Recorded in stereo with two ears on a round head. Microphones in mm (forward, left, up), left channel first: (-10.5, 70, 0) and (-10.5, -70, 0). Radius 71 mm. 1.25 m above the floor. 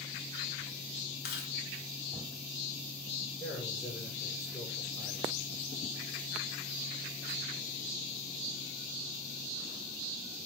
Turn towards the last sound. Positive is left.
turn(degrees=25)  # may be behind; listen again after turning